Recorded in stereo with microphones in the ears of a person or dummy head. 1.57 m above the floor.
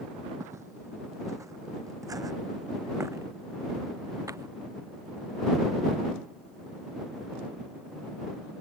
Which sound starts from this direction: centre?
Footsteps, at 0.4 s.